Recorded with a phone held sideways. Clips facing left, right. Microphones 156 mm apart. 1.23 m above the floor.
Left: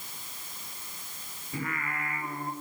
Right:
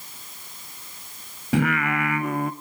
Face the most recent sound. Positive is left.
turn(degrees=-80)